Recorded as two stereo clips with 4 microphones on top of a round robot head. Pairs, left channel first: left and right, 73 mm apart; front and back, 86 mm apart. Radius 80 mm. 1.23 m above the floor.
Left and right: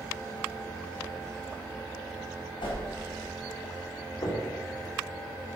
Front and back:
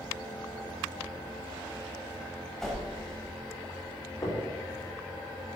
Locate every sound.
2.6 s a whoosh: 90° left, 4 m
4.2 s knocking: 55° left, 3 m